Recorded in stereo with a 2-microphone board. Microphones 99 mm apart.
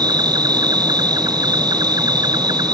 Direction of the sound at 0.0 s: 45° right (ahead or behind).